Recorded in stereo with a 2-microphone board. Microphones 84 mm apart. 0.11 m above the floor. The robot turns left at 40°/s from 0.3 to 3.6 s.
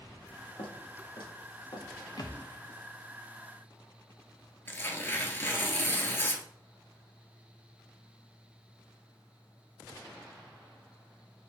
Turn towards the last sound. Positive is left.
turn(degrees=30)  # may be behind; listen again after turning